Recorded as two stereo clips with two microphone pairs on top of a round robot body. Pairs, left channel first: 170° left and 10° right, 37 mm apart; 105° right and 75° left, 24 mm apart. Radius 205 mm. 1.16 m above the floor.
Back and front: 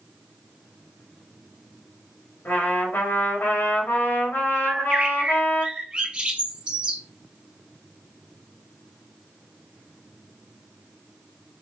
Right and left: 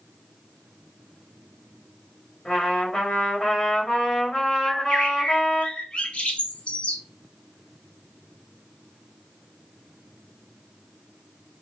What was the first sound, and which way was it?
A trumpet, 165° right.